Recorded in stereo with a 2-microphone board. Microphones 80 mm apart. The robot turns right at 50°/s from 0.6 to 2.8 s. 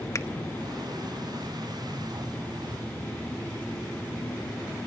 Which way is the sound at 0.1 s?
40° left (ahead or behind).